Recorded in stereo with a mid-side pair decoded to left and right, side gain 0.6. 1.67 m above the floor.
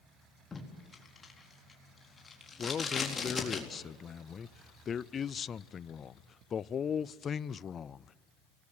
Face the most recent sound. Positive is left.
turn(degrees=35)